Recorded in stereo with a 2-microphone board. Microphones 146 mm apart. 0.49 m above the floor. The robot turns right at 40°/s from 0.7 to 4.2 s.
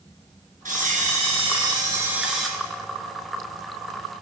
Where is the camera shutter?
70° right, 2.5 m; by 2.5 s straight ahead, 2.5 m.